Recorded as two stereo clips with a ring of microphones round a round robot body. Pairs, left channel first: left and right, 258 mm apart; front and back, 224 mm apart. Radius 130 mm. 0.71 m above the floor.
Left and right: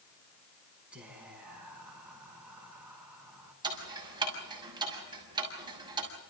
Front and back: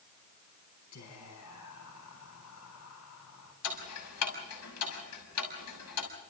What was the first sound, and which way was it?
Whispering, 5° right.